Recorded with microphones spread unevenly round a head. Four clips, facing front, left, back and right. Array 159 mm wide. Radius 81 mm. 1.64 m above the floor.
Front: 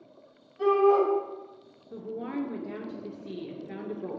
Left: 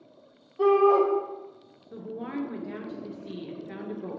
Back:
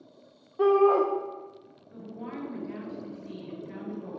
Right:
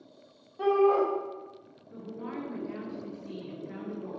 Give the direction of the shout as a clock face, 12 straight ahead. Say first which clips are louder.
Left 4 dB, back 1 dB; 7 o'clock.